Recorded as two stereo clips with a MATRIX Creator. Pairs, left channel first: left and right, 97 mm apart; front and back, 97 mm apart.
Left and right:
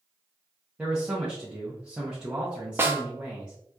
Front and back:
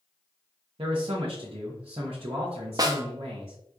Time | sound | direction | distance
0.8 | a man speaking | 170° right | 0.7 m
2.8 | a snare drum | 150° right | 0.5 m